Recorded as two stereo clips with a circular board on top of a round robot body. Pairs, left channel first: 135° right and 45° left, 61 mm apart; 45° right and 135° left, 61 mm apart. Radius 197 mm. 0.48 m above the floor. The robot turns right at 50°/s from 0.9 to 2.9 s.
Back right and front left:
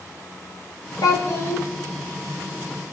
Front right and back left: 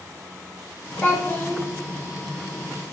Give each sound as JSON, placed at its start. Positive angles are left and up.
{"t": 1.0, "sound": "a child speaking", "azimuth_deg": -115, "distance_m": 2.5}